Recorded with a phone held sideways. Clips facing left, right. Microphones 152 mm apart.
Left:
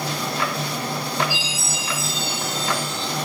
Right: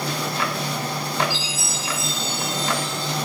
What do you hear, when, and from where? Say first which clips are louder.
1.3 s a chime: even; 5° left (ahead or behind), 1.9 m